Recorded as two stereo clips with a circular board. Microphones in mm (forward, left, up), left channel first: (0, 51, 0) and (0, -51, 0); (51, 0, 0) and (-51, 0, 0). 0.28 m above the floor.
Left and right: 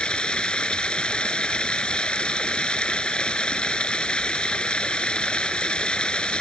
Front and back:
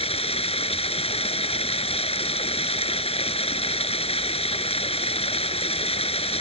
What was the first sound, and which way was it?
Running water, 10° left.